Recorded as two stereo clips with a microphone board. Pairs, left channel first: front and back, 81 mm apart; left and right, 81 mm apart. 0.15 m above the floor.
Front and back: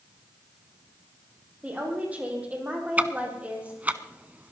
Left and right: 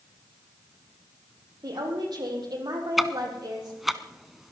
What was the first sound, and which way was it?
A woman speaking, 110° right.